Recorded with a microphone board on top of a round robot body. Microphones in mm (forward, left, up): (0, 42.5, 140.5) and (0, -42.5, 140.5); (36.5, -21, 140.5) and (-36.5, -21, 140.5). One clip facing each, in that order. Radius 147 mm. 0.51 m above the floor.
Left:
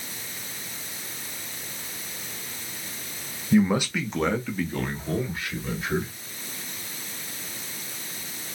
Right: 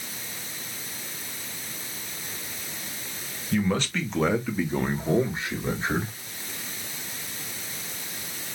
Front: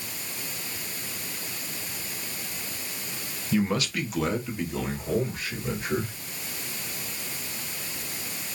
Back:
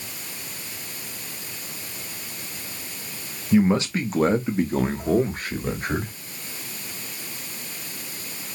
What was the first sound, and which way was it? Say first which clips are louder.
A man speaking: left 4 dB, back 7 dB; 135° left.